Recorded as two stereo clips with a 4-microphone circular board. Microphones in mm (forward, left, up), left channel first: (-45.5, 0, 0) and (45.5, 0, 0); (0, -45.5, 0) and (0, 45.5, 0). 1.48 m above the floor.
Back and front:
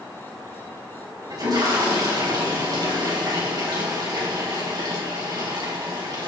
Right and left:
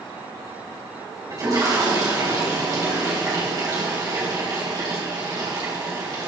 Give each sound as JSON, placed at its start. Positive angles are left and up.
{"t": 1.3, "sound": "a toilet flushing", "azimuth_deg": 45, "distance_m": 4.0}